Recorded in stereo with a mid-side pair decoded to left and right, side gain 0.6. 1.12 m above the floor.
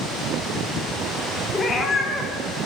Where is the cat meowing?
25° left, 1.4 m.